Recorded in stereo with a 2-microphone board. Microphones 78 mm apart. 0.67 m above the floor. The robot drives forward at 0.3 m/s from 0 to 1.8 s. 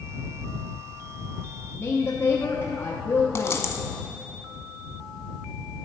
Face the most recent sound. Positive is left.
turn(degrees=35)  # may be behind; listen again after turning